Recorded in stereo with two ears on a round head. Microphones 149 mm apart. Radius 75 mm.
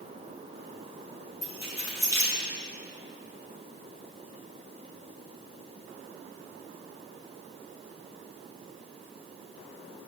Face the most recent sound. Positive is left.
turn(degrees=20)  # may be behind; listen again after turning